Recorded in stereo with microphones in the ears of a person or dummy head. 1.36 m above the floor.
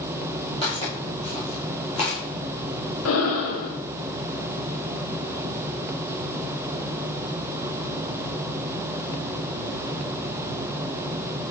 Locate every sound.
0.6 s footsteps: 30° left (ahead or behind), 1.9 m
3.0 s breathing: 70° left (ahead or behind), 1.1 m